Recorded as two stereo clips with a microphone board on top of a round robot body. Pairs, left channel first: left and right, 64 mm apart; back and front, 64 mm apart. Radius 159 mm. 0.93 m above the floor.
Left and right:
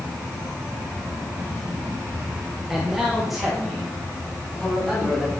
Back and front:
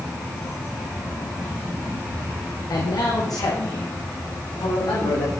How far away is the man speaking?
About 1.8 m.